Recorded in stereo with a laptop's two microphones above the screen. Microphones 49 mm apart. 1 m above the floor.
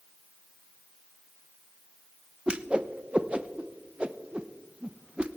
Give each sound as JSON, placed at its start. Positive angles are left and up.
{"t": 2.5, "sound": "a whoosh", "side_deg": -25, "distance_m": 0.7}